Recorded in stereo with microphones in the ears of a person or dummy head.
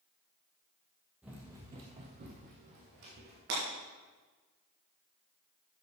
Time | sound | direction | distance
1.2 | running footsteps | 5° right (ahead or behind) | 2 m
3.5 | breaking glass | 70° right (ahead or behind) | 4.5 m